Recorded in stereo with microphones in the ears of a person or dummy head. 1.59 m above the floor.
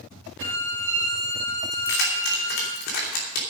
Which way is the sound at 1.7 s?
55° left (ahead or behind).